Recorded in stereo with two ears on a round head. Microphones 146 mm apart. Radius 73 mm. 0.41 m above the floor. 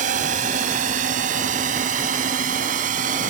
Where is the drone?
50° right (ahead or behind); by 3.3 s 55° right (ahead or behind).